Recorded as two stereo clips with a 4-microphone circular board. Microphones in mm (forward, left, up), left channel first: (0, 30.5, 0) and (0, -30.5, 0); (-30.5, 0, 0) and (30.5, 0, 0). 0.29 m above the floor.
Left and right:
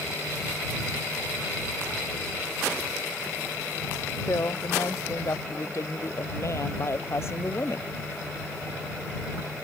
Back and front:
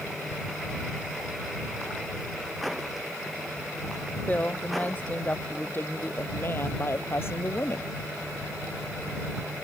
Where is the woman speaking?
115° left; by 7.9 s 140° left.